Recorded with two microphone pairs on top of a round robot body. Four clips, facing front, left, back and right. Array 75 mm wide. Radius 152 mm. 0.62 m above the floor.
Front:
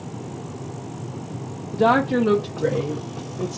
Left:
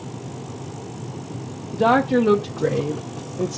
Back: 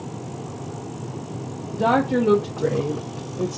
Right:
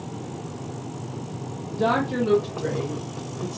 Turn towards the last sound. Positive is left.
turn(degrees=95)